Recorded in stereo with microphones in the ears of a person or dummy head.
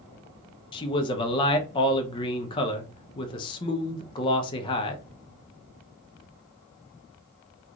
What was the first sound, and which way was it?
A man speaking, 20° left (ahead or behind).